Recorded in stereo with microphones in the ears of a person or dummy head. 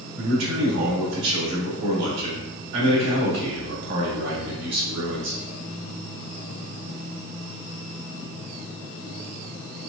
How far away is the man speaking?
About 1.6 m.